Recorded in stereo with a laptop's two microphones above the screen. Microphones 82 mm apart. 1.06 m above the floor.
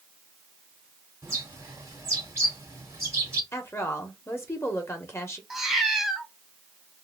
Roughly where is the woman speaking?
Left.